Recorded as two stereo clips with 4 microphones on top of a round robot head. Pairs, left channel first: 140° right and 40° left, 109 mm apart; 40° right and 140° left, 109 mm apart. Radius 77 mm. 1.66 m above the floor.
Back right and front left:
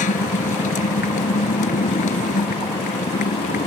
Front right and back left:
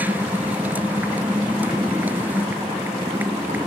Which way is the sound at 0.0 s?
145° right.